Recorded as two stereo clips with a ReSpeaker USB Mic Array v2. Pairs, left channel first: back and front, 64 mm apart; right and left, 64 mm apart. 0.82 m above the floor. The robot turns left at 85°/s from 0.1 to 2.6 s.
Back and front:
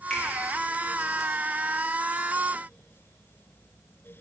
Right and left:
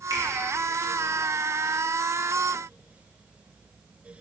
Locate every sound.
0.1 s a finger snap: 105° left, 1.3 m; by 0.3 s 90° left, 1.3 m